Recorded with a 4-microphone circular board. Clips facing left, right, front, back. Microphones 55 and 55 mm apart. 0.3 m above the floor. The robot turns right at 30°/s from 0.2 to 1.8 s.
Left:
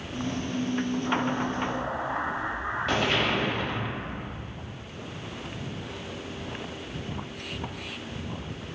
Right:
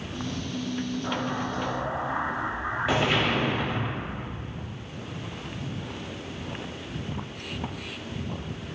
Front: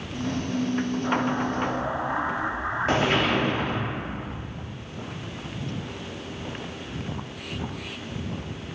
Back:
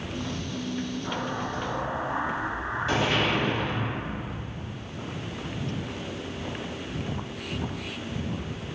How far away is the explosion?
About 0.6 m.